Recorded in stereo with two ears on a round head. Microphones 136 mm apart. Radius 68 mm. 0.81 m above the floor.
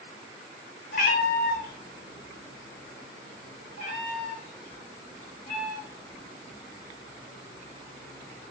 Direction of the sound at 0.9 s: 55° left (ahead or behind).